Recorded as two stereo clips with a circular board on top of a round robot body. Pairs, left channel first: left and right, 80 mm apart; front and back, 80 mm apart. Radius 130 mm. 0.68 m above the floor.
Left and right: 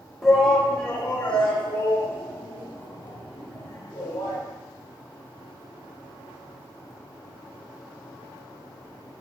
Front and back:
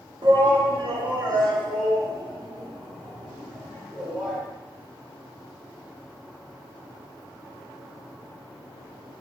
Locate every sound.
0.2 s a shout: straight behind, 1.6 m; by 4.4 s 150° left, 6.5 m